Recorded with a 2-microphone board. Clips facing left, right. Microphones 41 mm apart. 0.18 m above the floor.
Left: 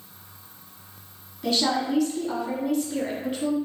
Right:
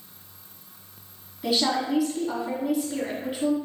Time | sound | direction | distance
1.4 | a woman speaking | 5° right (ahead or behind) | 1.1 m